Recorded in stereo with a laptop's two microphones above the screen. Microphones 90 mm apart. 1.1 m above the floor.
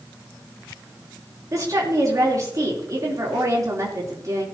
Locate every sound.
1.5 s a woman speaking: 40° right (ahead or behind), 3 m